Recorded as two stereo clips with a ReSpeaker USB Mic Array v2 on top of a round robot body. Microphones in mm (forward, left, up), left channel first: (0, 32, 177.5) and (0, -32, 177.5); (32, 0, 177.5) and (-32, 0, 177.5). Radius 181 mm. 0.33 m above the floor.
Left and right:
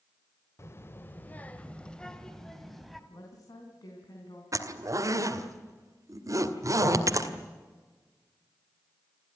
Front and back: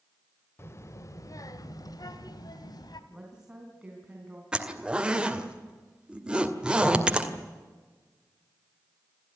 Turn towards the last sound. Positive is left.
turn(degrees=-105)